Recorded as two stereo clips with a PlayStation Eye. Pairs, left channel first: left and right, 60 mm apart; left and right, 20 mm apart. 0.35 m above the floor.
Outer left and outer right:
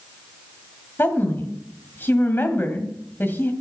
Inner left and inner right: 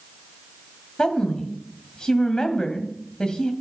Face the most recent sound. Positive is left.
turn(degrees=40)  # may be behind; listen again after turning